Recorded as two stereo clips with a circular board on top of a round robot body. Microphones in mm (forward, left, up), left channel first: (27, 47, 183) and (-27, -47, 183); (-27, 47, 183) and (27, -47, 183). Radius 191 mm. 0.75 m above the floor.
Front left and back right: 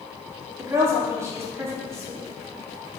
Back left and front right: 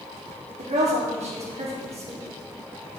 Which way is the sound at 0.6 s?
55° right.